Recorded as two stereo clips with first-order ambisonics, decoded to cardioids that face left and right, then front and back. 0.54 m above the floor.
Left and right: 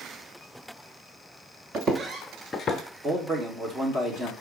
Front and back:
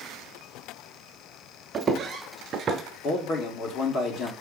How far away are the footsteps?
About 0.6 m.